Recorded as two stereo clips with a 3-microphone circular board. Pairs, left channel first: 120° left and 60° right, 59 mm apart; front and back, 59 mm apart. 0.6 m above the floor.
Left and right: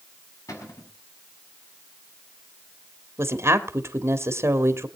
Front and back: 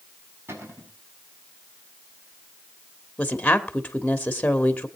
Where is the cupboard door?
140° left, 5.5 m.